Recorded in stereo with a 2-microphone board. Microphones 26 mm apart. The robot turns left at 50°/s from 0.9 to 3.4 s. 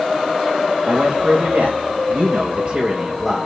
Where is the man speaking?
55° right, 1.6 m; by 3.5 s straight behind, 1.6 m.